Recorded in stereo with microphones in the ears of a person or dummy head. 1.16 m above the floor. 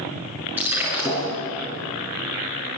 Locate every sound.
0.6 s breaking glass: 10° right (ahead or behind), 7 m